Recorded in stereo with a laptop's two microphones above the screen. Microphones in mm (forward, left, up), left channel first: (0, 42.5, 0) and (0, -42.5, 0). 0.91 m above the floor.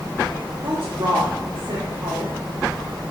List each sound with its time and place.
0.6 s a woman speaking: 65° right (ahead or behind), 1.9 m